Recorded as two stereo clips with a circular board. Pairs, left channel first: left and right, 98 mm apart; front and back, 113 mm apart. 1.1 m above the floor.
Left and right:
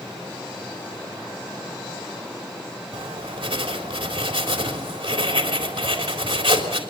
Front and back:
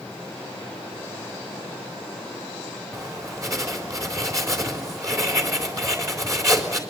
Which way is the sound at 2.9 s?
120° right.